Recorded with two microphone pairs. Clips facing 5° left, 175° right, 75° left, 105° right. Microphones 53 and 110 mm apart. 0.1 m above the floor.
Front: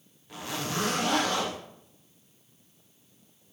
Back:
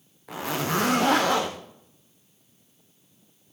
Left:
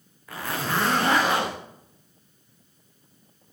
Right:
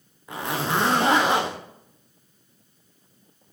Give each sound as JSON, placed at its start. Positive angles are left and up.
{"t": 0.3, "sound": "a zipper", "azimuth_deg": -175, "distance_m": 4.5}